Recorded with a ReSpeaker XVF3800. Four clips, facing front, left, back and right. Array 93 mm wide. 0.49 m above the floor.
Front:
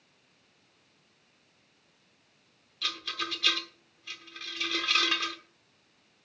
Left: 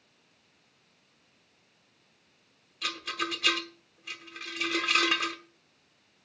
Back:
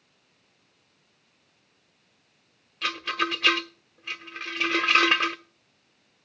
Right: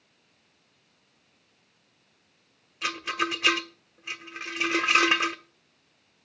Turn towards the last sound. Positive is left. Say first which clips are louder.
# right 5 dB, back 9 dB
turn(degrees=-150)